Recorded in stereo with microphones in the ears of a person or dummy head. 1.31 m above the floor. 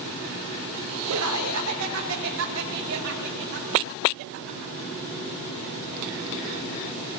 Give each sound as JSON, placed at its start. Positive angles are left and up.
{"t": 1.1, "sound": "laughter", "side_deg": -80, "distance_m": 3.0}